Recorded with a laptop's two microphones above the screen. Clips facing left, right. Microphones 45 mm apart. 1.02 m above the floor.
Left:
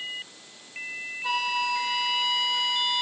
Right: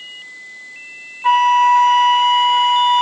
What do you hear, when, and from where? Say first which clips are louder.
1.2 s a flute: right 16 dB; 50° right (ahead or behind), 0.8 m